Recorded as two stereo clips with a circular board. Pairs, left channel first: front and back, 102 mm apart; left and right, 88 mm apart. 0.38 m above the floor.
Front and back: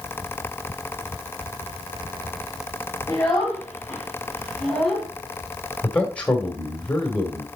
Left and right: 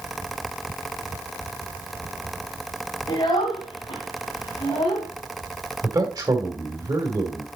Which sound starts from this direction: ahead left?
A child speaking, at 3.1 s.